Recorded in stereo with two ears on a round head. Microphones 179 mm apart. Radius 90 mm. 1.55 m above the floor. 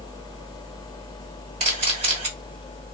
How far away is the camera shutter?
About 2.5 m.